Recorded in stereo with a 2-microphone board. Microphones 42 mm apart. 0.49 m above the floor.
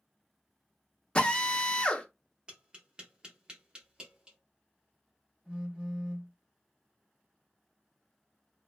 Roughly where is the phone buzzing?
Right.